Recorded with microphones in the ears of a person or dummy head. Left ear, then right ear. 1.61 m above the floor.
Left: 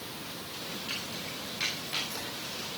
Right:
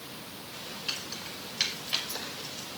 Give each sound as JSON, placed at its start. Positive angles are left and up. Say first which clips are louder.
{"t": 0.9, "sound": "keys jangling", "louder": "right 3 dB", "side_deg": -55, "distance_m": 6.0}